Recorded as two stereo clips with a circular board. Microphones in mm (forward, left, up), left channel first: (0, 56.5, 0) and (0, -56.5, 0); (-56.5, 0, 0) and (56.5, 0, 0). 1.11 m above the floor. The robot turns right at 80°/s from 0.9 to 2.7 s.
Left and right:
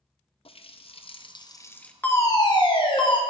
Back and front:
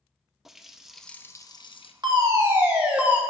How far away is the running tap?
About 0.5 m.